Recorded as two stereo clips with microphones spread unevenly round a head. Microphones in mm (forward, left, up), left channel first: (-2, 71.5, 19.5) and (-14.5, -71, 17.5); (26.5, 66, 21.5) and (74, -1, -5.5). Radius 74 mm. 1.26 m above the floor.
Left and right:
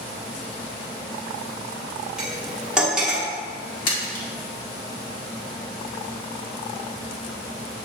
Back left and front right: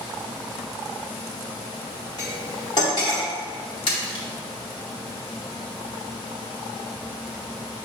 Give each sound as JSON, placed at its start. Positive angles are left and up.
{"t": 2.2, "sound": "cutlery clinking", "azimuth_deg": 180, "distance_m": 1.8}
{"t": 3.9, "sound": "a splash", "azimuth_deg": 110, "distance_m": 2.0}